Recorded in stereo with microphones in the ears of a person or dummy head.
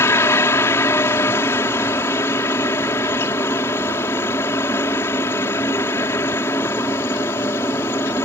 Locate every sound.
0.0 s a helicopter: 10° left (ahead or behind)